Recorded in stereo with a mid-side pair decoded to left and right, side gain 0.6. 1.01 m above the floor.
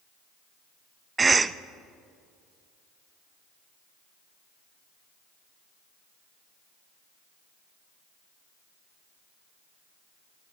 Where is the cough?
25° right, 0.5 m.